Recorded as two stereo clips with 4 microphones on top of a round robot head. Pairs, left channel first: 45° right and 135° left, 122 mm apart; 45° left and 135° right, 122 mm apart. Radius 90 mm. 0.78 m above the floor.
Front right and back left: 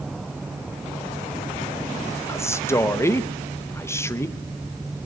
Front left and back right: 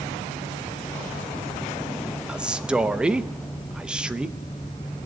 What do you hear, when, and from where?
2.3 s a man speaking: 65° right, 0.7 m